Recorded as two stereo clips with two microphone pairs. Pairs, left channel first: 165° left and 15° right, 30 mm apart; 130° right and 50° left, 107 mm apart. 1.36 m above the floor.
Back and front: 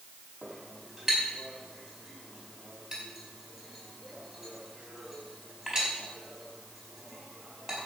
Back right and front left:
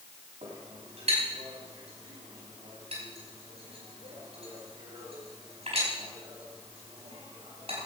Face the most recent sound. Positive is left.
turn(degrees=55)